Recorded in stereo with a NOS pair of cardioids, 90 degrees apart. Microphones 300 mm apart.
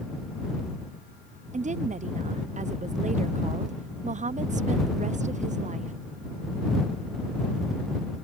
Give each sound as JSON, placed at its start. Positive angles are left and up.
{"t": 1.5, "sound": "a woman speaking", "azimuth_deg": -25}